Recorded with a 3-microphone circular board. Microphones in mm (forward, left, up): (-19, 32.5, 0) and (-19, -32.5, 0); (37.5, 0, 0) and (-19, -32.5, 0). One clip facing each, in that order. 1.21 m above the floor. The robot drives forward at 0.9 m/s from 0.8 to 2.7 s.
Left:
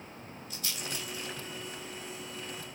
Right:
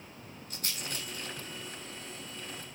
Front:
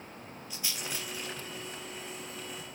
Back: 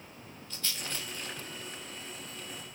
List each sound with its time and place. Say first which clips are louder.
0.5 s a rattle: even, even; 45° right, 4 m; by 1.4 s 50° right, 3.5 m